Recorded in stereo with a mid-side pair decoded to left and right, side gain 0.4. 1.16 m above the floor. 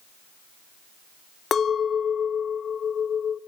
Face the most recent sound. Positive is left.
turn(degrees=50)